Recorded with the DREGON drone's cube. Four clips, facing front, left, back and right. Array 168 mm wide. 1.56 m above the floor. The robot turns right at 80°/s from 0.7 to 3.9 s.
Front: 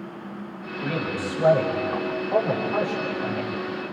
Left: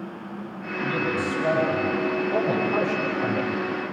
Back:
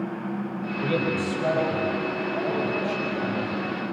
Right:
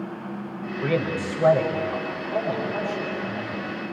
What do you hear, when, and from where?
0.8 s a man speaking: 105° right, 6.5 m; by 3.6 s 120° left, 6.5 m